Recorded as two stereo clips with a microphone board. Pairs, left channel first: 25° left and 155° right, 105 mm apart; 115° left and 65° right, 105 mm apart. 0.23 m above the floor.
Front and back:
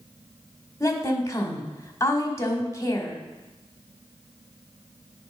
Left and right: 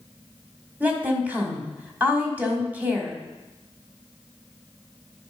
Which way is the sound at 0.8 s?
5° right.